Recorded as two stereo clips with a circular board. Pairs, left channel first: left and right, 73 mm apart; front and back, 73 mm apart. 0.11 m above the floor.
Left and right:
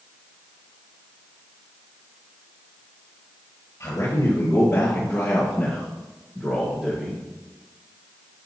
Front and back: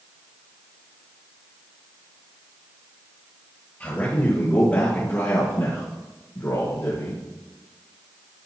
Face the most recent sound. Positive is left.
turn(degrees=-10)